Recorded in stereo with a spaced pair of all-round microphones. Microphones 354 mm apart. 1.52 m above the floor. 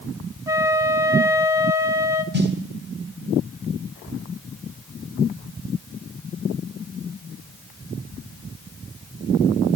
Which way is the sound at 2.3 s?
30° right (ahead or behind).